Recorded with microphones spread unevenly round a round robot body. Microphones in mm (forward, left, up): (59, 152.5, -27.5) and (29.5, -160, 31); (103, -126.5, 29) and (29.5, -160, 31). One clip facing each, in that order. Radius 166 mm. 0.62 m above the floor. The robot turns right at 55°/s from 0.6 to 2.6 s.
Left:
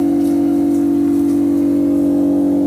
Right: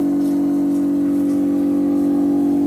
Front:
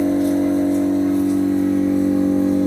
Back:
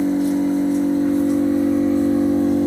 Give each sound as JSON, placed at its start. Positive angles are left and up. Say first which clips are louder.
{"t": 0.0, "sound": "an engine running", "louder": "left 3 dB, front 1 dB", "azimuth_deg": 50, "distance_m": 1.3}